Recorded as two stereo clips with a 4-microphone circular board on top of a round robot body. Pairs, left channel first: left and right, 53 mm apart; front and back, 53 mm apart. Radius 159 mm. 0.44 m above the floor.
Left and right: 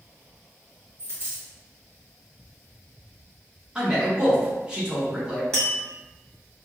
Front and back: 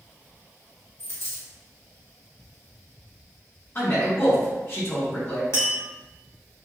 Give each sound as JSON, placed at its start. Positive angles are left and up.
{"t": 1.0, "sound": "a dropped coin", "azimuth_deg": -45, "distance_m": 1.9}
{"t": 3.8, "sound": "a man speaking", "azimuth_deg": -25, "distance_m": 1.4}
{"t": 5.5, "sound": "tapping", "azimuth_deg": 10, "distance_m": 1.9}